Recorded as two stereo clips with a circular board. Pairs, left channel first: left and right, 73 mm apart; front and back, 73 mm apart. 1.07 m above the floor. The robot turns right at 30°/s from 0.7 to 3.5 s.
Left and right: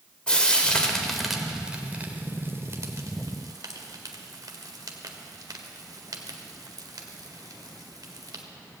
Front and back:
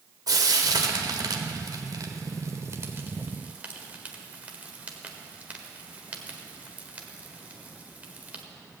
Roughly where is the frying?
Behind.